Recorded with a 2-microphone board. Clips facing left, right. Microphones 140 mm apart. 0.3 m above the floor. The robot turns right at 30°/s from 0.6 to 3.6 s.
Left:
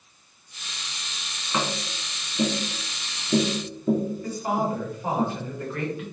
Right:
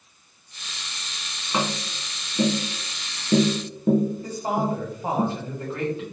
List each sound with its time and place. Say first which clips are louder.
1.5 s tapping: right 2 dB; 15° right (ahead or behind), 0.8 m; by 5.2 s 75° right (ahead or behind), 0.8 m
4.2 s a woman speaking: right 1 dB; 25° right (ahead or behind), 1.5 m